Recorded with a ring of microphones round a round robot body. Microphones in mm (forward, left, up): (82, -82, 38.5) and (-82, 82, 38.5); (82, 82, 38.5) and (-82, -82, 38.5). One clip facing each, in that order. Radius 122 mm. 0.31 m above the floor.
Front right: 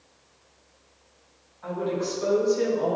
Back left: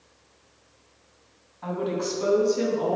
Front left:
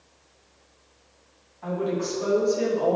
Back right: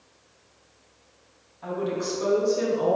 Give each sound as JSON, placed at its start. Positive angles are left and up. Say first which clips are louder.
{"t": 1.6, "sound": "a woman speaking", "louder": "even, front left 1 dB", "azimuth_deg": 140, "distance_m": 3.0}